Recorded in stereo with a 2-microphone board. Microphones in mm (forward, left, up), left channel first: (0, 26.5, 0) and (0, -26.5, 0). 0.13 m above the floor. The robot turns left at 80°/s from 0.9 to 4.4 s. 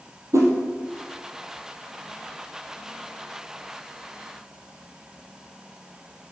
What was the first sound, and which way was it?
A whoosh, 75° right (ahead or behind).